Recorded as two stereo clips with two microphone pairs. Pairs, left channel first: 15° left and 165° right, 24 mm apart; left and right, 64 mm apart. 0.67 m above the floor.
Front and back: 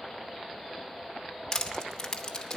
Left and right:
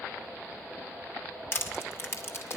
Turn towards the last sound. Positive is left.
turn(degrees=65)